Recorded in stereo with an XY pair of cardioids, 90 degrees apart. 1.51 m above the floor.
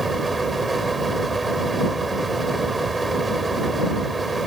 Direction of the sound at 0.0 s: 20° right.